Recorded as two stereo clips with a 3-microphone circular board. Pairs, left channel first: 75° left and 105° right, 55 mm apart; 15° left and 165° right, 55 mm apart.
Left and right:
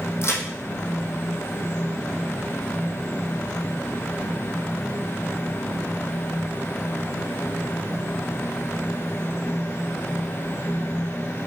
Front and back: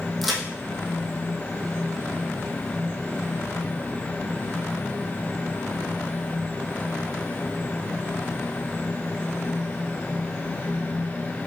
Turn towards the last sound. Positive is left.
turn(degrees=105)